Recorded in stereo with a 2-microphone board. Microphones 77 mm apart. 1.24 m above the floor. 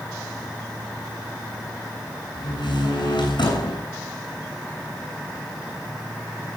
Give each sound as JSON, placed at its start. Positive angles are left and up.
{"t": 2.4, "sound": "a door slam", "side_deg": 75, "distance_m": 8.0}